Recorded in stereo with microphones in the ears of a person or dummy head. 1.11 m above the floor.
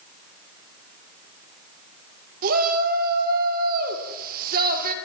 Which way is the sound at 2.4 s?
50° right (ahead or behind).